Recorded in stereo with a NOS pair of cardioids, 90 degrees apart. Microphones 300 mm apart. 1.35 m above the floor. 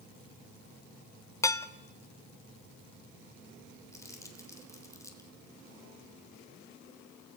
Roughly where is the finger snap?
No finger snap in this recording.